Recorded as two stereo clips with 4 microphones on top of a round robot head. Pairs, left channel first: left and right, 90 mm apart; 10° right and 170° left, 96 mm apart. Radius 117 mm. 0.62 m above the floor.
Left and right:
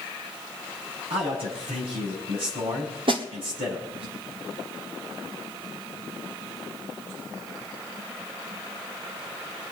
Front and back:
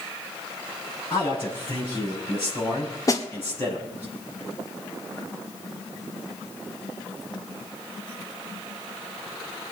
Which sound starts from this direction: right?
A man speaking, at 1.1 s.